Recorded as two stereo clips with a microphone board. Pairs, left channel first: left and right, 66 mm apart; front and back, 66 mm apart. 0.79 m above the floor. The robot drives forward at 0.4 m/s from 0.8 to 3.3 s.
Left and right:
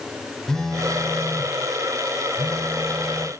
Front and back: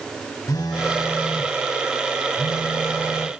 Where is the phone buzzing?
10° left, 3 m.